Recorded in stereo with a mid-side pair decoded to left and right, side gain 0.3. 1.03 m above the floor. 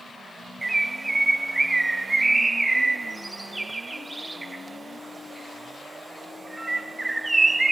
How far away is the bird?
About 0.5 m.